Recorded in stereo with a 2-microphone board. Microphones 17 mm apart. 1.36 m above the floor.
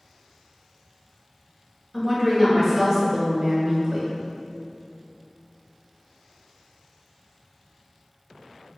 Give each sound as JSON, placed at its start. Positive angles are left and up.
{"t": 1.9, "sound": "a woman speaking", "side_deg": -5, "distance_m": 1.2}